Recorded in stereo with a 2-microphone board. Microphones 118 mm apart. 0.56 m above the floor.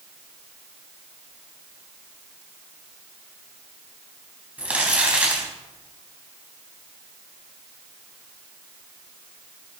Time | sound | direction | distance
4.6 | crumpling | 15° right (ahead or behind) | 3.5 m